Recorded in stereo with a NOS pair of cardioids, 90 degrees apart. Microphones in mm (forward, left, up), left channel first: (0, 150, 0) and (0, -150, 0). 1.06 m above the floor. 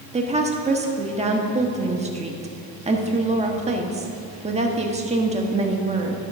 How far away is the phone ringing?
No phone ringing in this recording.